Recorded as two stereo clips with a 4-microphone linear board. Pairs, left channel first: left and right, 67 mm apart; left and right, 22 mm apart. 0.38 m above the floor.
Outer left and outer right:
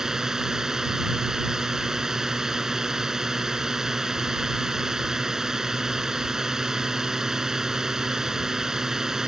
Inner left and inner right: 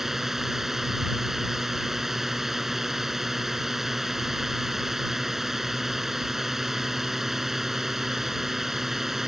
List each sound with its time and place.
0.0 s a drone: 10° right (ahead or behind)